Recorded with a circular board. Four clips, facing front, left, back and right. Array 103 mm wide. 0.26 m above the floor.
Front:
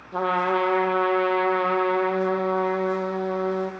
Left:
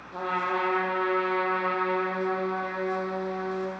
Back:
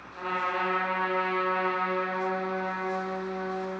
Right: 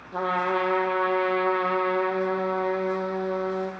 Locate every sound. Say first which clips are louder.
0.1 s a trumpet: right 3 dB, front 8 dB; 20° right, 2.5 m